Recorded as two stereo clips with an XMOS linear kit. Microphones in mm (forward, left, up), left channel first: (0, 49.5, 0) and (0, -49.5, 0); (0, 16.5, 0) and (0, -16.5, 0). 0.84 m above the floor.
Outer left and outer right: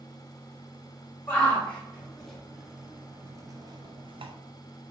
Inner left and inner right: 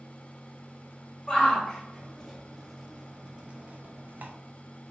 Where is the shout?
15° left (ahead or behind), 1.7 m; by 4.3 s 65° right (ahead or behind), 0.9 m.